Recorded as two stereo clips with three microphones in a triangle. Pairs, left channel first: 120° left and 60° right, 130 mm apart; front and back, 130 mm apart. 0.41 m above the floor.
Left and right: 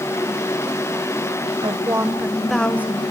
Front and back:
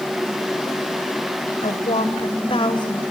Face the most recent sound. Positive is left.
turn(degrees=50)